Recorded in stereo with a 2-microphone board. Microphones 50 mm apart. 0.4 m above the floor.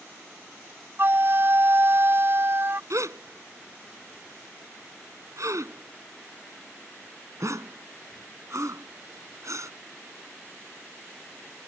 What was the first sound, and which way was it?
A flute, 45° right (ahead or behind).